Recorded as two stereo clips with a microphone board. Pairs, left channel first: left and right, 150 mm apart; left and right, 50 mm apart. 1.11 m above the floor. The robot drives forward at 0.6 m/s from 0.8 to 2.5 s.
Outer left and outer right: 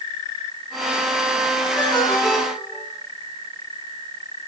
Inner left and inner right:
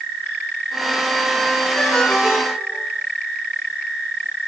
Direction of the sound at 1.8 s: 5° left (ahead or behind).